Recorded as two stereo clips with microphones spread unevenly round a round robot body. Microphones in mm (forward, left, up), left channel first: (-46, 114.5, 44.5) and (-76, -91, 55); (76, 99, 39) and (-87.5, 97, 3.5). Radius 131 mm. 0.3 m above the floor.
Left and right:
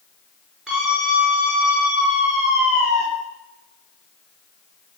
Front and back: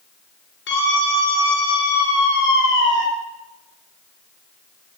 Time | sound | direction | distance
0.7 | a scream | 10° right | 4.5 m